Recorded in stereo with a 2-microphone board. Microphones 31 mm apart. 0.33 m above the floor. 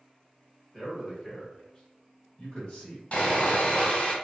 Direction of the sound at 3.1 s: 45° left (ahead or behind).